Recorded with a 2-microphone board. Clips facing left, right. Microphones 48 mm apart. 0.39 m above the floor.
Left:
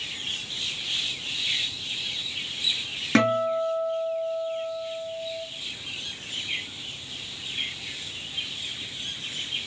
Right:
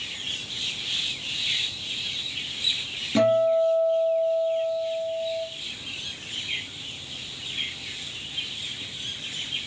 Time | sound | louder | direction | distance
3.1 | a guitar | right 3 dB | 75° left (ahead or behind) | 2 m